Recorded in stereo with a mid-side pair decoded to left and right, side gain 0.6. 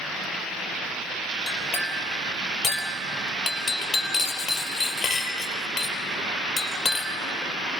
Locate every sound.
1.5 s a clink: 45° left, 3.5 m